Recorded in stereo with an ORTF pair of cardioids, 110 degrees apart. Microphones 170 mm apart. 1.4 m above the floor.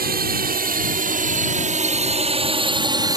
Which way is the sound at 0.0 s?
70° right.